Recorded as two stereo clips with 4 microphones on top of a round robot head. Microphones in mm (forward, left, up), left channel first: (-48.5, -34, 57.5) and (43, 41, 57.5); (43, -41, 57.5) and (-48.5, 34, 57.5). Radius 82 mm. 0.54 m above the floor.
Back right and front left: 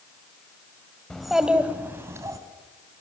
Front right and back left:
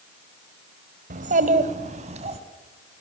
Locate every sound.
1.1 s a child speaking: 135° left, 1.7 m; by 2.4 s 105° left, 2.5 m